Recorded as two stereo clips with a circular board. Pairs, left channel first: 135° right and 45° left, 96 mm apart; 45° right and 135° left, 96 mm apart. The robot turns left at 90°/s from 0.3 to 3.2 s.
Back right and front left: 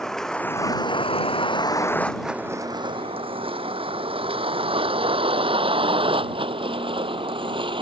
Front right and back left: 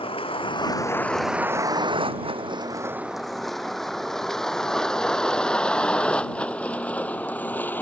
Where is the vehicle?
50° right; by 7.8 s 25° left.